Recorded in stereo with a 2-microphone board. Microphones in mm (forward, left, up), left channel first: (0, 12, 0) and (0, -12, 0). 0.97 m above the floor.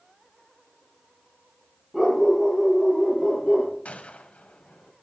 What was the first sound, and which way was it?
A dog barking, 10° right (ahead or behind).